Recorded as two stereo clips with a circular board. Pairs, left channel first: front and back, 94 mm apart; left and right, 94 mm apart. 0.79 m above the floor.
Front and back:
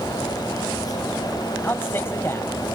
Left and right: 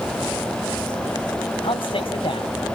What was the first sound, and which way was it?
A man speaking, 65° left.